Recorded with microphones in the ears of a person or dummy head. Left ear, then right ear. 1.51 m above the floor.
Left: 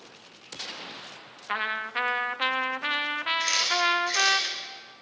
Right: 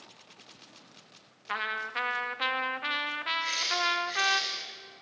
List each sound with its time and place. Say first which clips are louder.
1.5 s a trumpet: left 3 dB; 15° left (ahead or behind), 0.8 m
3.4 s a camera shutter: left 5 dB; 65° left (ahead or behind), 6 m